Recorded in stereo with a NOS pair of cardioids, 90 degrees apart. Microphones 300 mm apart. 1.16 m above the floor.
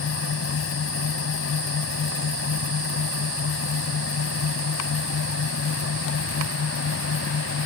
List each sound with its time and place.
0.0 s a fan: 50° left